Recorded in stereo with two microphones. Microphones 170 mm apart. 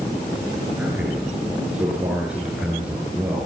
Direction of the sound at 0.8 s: 5° right (ahead or behind).